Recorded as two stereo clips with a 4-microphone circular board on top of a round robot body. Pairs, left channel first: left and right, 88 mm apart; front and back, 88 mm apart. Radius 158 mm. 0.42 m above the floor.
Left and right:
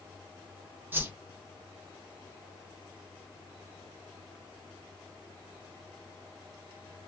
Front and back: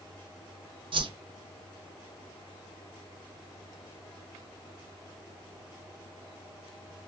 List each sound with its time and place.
0.9 s a whoosh: 155° right, 0.8 m